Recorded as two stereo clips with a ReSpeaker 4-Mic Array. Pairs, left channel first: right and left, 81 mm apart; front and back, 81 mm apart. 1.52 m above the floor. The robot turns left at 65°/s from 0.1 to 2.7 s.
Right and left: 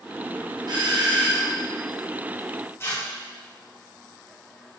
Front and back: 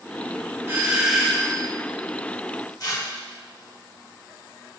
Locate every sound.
0.7 s a doorbell: 120° left, 1.4 m; by 1.6 s 60° left, 1.4 m
2.8 s tearing paper: 35° right, 1.4 m